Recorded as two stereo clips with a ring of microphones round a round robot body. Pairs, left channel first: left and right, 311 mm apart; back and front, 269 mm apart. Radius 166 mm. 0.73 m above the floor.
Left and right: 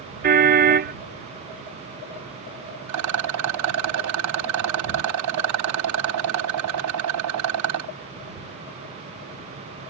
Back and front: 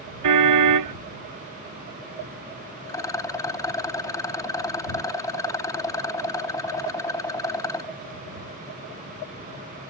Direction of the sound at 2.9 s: 105° right.